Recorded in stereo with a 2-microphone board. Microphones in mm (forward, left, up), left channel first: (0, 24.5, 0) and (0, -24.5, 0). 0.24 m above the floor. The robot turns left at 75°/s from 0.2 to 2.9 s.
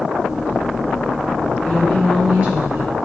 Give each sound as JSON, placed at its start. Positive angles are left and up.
{"t": 1.6, "sound": "a woman speaking", "azimuth_deg": 25, "distance_m": 4.5}